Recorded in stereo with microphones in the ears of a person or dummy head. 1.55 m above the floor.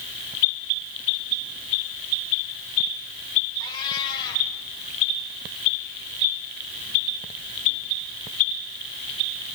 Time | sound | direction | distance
3.6 | a cat meowing | 25° left (ahead or behind) | 3 m